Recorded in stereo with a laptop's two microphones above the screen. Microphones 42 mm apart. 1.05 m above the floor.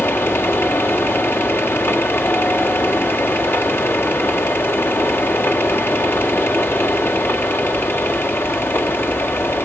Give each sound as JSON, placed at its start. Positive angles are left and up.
{"t": 0.0, "sound": "a fan", "side_deg": 60, "distance_m": 1.6}